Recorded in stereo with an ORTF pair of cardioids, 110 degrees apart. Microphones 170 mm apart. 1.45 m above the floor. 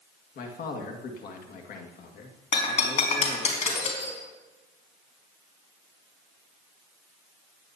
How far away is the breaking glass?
About 4 m.